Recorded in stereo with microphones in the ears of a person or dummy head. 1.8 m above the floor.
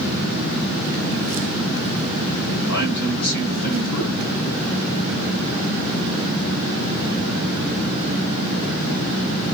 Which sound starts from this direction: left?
A man speaking, at 2.7 s.